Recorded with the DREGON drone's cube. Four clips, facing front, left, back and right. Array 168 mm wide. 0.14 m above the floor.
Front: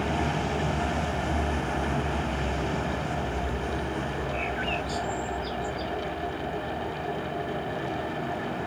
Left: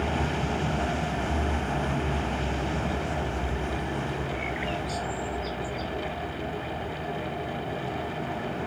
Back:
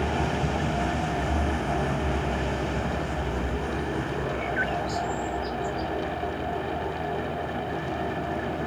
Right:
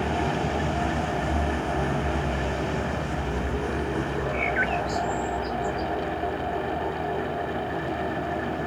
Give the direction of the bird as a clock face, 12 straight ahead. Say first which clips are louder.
Right 6 dB, back 2 dB; 4 o'clock.